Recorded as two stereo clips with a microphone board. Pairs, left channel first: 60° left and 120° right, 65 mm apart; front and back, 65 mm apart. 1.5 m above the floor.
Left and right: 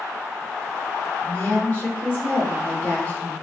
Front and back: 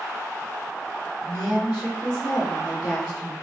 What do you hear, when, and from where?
1.2 s a woman speaking: straight ahead, 1.4 m